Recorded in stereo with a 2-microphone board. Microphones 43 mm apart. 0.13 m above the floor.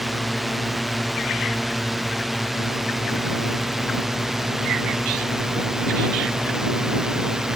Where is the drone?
5° right (ahead or behind); by 7.6 s 10° right (ahead or behind).